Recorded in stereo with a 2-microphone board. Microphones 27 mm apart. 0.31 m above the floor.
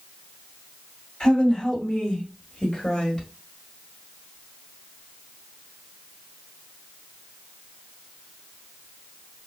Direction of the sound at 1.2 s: 40° left (ahead or behind).